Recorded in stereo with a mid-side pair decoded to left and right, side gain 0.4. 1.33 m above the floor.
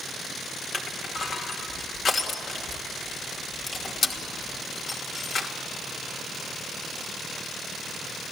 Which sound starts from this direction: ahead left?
Crushing, at 0.7 s.